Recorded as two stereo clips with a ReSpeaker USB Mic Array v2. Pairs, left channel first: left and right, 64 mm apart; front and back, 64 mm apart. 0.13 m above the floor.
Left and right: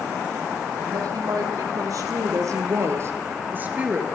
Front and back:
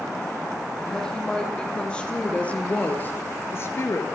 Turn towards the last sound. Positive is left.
turn(degrees=-20)